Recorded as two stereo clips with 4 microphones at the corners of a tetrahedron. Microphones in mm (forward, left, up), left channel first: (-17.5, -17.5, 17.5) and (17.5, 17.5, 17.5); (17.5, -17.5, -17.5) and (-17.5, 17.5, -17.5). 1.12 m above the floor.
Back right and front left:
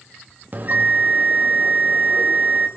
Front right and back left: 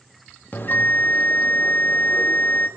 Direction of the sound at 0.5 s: Straight ahead.